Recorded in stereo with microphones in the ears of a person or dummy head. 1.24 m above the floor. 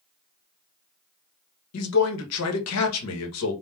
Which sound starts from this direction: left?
A man speaking, at 1.7 s.